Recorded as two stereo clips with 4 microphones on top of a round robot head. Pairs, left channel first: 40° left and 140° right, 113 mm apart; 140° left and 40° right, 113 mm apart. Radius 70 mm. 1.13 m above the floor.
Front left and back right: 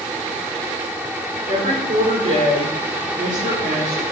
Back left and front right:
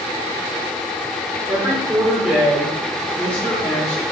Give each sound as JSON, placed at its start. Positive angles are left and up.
{"t": 1.5, "sound": "a woman speaking", "azimuth_deg": -110, "distance_m": 5.5}